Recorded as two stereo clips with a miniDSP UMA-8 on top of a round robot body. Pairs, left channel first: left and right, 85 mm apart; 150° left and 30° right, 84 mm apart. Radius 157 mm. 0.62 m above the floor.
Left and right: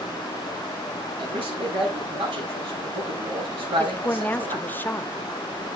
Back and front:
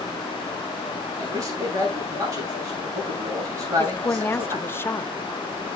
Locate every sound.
1.2 s a man speaking: 85° right, 7 m
3.8 s a woman speaking: 130° left, 1.1 m